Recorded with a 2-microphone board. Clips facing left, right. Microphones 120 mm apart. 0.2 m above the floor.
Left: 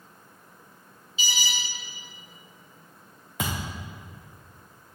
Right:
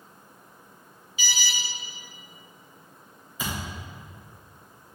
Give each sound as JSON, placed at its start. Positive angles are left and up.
{"t": 1.2, "sound": "an alarm", "side_deg": 25, "distance_m": 2.5}
{"t": 3.4, "sound": "a thud", "side_deg": 70, "distance_m": 3.0}